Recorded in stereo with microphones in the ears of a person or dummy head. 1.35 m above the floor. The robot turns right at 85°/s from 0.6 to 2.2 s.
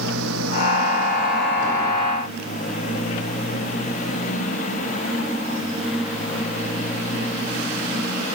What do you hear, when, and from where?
0.0 s a motorcycle: 80° right; by 8.3 s 45° left (ahead or behind)